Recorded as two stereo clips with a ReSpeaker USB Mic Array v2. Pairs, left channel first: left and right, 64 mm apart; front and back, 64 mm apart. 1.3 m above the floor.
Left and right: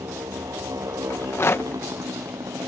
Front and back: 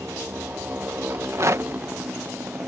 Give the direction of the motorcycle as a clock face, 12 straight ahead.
4 o'clock.